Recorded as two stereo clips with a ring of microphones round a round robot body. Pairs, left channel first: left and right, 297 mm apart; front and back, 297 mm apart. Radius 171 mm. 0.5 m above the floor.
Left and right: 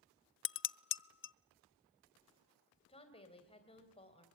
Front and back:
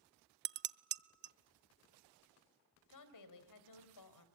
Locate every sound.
0.5 s dishes clattering: 135° left, 0.5 m
2.9 s a woman speaking: 20° left, 3 m